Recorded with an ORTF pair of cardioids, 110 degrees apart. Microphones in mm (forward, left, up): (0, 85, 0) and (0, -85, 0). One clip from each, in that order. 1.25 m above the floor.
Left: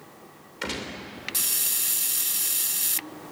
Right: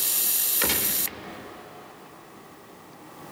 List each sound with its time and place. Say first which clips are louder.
0.6 s a gunshot: right 3 dB; 30° right, 2.5 m